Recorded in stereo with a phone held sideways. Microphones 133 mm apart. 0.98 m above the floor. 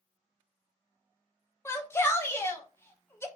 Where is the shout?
20° left (ahead or behind), 0.6 m.